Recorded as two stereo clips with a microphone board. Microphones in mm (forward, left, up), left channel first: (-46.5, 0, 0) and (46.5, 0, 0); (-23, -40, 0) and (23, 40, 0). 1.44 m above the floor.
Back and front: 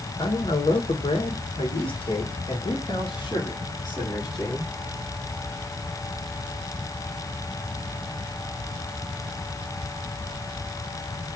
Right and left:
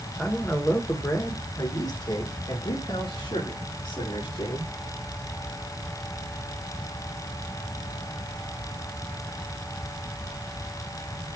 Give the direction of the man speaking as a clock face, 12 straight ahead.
7 o'clock.